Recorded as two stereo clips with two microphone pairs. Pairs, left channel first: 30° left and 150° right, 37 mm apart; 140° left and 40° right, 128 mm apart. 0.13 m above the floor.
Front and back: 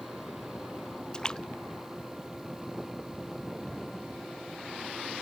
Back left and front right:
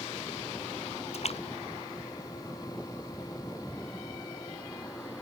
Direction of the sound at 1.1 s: 100° left.